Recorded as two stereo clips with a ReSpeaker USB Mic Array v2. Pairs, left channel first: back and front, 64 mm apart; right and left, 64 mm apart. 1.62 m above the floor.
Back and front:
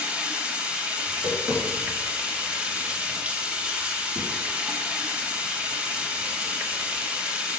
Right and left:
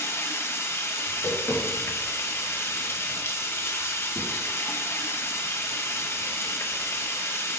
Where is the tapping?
35° right, 3.5 m.